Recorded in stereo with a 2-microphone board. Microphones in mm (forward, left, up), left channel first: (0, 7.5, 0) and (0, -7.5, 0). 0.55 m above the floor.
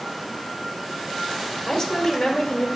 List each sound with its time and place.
1.7 s a woman speaking: 40° left (ahead or behind), 1.6 m